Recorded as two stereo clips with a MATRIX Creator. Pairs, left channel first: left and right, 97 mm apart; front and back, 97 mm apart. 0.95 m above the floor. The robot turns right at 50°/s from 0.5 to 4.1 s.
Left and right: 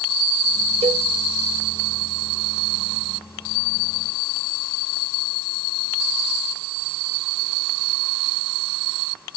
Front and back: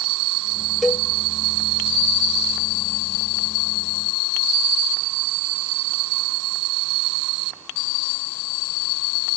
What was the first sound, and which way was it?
A cowbell, 90° right.